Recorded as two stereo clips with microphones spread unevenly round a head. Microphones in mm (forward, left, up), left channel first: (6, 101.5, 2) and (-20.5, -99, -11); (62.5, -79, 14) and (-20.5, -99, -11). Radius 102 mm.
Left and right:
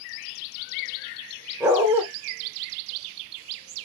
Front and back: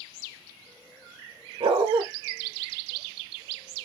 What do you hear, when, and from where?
1.6 s a dog barking: straight behind, 0.7 m